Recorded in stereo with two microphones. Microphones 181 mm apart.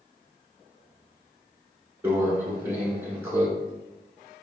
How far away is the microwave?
About 0.9 m.